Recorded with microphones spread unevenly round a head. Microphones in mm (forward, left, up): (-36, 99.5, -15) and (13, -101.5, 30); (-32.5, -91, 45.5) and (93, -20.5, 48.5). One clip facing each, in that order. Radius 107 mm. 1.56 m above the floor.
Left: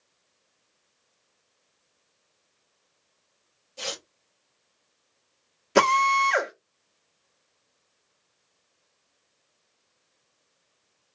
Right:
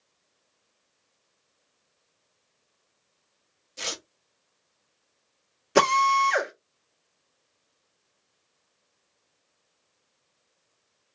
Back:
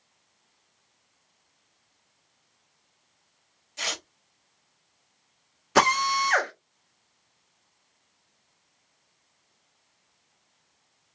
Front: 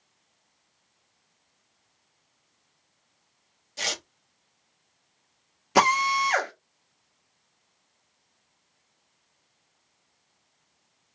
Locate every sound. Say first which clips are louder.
3.8 s tearing paper: left 2 dB, front 2 dB; 20° right, 0.9 m
5.8 s a drill: even, front 1 dB; 25° right, 1.1 m